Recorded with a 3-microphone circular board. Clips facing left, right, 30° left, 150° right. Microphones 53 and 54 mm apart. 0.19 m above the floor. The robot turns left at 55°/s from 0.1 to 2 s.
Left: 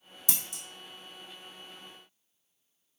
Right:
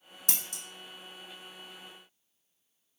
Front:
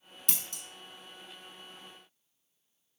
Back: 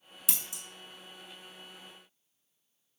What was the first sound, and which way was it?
Scissors, 65° right.